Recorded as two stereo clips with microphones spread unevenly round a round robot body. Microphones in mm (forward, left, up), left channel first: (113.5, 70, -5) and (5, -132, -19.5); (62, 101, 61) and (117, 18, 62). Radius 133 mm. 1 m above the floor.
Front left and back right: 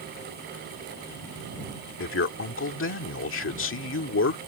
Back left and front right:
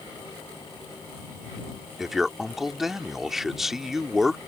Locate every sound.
2.0 s a man speaking: 30° left